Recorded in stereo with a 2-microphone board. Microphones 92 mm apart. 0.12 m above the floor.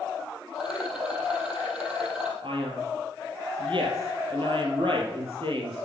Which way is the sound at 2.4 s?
65° right (ahead or behind).